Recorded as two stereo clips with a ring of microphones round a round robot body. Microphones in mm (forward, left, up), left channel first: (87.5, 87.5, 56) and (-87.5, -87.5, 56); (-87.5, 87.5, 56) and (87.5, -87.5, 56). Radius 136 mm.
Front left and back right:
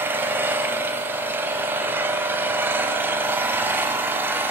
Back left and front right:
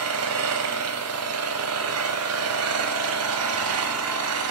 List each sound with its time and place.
0.0 s an engine running: 55° right, 2.5 m